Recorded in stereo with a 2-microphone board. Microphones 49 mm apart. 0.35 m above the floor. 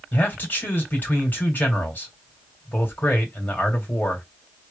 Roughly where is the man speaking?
Left.